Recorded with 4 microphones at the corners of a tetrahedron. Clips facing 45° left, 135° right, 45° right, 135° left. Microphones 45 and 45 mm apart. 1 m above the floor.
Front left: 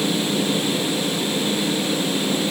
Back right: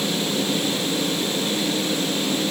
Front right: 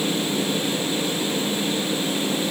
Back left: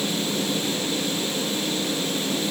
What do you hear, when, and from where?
Only background noise.